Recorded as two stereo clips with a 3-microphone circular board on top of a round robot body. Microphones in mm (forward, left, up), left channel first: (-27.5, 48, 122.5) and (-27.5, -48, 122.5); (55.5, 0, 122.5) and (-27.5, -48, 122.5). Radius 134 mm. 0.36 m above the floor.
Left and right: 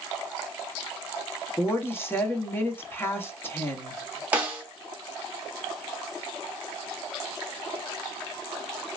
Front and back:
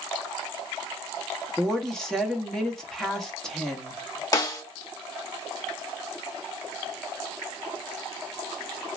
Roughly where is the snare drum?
Ahead.